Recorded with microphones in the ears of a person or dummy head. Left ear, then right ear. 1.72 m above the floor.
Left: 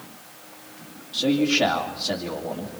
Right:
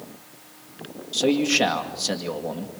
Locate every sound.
1.1 s a man speaking: 70° right (ahead or behind), 2 m